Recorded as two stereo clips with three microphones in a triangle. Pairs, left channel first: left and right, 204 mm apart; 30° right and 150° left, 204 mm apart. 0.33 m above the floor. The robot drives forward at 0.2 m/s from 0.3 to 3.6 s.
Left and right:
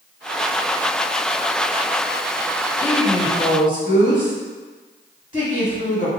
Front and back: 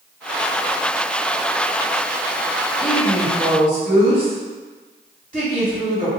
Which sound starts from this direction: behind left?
A woman speaking, at 2.8 s.